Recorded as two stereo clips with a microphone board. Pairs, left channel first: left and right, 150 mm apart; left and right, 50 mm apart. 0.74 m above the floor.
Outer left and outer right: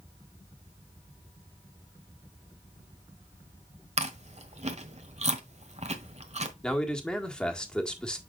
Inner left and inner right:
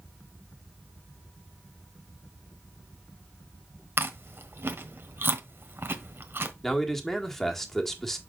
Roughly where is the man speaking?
Centre.